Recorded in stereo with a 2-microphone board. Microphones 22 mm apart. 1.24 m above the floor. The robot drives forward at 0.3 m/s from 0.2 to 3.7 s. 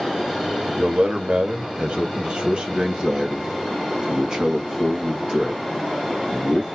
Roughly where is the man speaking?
Right.